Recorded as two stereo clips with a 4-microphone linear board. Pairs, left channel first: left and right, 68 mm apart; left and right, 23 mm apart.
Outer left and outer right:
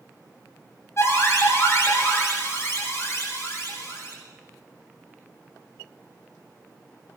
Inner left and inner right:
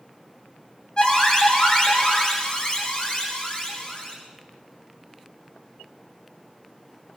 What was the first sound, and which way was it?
An alarm, 40° left (ahead or behind).